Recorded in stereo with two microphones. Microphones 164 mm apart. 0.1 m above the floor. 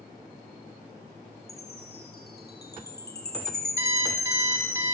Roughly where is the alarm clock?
Centre.